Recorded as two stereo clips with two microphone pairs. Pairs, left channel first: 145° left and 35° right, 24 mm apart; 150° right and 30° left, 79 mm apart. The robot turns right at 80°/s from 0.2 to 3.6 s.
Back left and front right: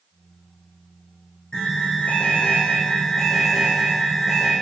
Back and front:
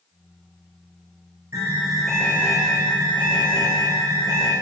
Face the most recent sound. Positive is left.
turn(degrees=-115)